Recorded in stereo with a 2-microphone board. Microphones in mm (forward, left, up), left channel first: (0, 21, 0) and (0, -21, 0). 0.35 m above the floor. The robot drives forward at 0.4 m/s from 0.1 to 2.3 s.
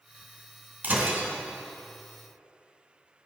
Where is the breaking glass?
50° right (ahead or behind), 1.9 m; by 1.3 s 55° right (ahead or behind), 1.8 m.